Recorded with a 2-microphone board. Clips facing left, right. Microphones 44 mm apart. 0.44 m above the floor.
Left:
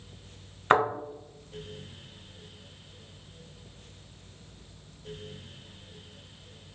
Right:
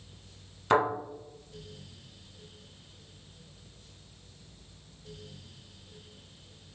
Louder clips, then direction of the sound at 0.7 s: Left 2 dB; 30° left (ahead or behind).